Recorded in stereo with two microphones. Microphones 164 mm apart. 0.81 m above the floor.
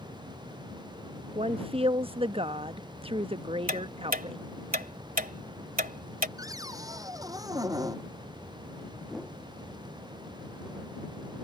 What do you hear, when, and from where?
1.4 s a woman speaking: 35° right (ahead or behind)
3.7 s ticking: 70° right (ahead or behind)
6.4 s a cupboard door: 20° right (ahead or behind)
9.1 s a whoosh: centre (ahead or behind)